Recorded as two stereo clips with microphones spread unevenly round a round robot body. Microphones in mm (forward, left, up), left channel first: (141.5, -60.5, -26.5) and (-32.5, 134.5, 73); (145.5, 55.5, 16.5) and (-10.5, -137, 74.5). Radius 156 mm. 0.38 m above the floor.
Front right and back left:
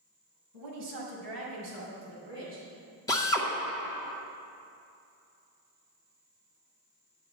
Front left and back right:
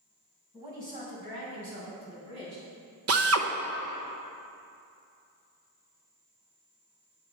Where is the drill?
110° right, 0.9 m.